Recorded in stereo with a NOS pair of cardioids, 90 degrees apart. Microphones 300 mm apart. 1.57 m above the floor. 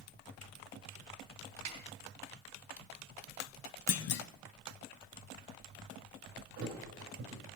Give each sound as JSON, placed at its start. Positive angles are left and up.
{"t": 1.6, "sound": "a snare drum", "azimuth_deg": -60, "distance_m": 2.5}
{"t": 3.9, "sound": "a clunk", "azimuth_deg": 50, "distance_m": 0.6}
{"t": 6.6, "sound": "a thud", "azimuth_deg": -65, "distance_m": 3.0}